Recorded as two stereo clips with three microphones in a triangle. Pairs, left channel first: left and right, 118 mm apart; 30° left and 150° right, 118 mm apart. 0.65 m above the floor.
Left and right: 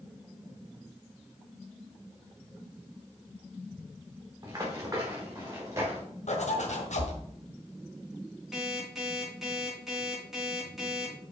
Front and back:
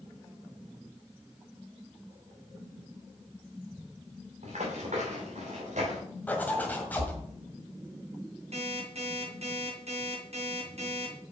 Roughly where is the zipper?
Left.